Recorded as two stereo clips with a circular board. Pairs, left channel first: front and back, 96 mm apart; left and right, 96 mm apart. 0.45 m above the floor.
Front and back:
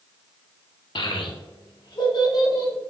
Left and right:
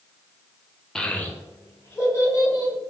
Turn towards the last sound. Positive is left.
turn(degrees=35)